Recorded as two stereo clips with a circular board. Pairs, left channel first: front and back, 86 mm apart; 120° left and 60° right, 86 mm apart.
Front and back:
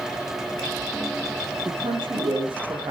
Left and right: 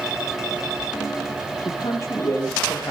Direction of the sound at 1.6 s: 170° left.